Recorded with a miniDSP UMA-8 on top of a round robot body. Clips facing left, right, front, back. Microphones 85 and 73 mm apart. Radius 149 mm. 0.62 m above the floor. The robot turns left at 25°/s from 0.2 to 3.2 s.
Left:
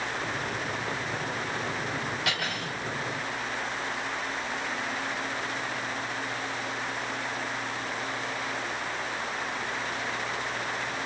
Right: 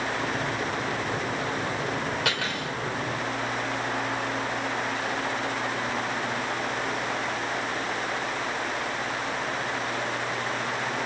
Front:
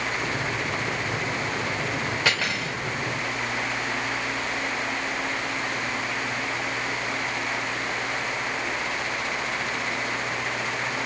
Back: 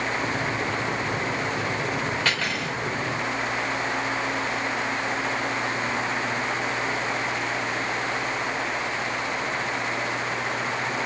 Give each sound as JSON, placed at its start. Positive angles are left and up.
{"t": 2.2, "sound": "cutlery clinking", "azimuth_deg": -80, "distance_m": 1.5}